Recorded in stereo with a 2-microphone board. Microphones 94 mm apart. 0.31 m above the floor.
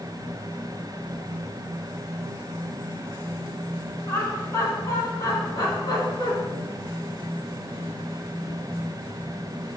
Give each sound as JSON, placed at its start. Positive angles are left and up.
{"t": 4.1, "sound": "laughter", "side_deg": 25, "distance_m": 3.0}